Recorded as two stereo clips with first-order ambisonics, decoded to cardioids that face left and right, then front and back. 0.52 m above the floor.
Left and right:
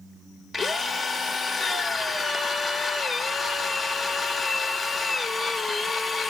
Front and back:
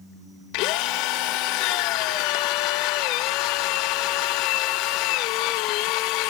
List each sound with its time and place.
0.5 s a drill: 10° left, 0.7 m